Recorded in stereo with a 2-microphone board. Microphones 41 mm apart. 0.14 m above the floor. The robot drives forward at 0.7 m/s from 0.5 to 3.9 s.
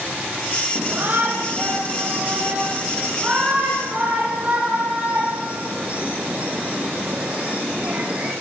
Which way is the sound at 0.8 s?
40° right (ahead or behind).